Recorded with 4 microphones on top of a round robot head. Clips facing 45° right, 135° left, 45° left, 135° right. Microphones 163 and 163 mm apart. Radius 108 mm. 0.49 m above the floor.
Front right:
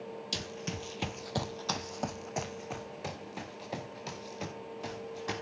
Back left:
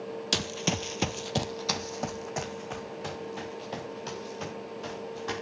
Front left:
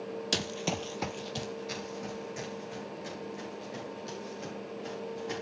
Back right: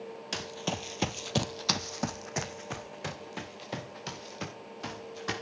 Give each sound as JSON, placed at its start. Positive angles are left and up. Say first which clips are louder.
{"t": 0.3, "sound": "running footsteps", "louder": "back left 11 dB, front left 1 dB", "azimuth_deg": 100, "distance_m": 0.9}